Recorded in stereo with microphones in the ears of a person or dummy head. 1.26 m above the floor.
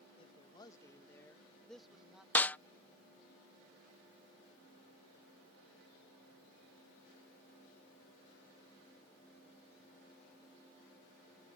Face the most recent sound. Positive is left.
turn(degrees=5)  # may be behind; listen again after turning